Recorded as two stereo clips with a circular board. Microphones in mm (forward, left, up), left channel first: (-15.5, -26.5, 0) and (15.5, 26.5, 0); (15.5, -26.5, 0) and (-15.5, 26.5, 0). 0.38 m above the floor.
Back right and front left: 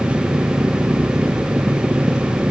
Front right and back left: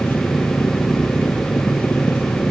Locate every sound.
0.0 s an engine running: 10° right